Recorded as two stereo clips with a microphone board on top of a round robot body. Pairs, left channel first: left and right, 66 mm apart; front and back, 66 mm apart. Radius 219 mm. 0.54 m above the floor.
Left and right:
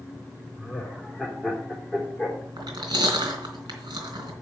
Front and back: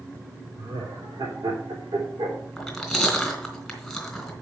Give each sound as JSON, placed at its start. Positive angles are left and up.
{"t": 0.6, "sound": "laughter", "azimuth_deg": 180, "distance_m": 3.5}
{"t": 2.6, "sound": "chewing", "azimuth_deg": -90, "distance_m": 3.5}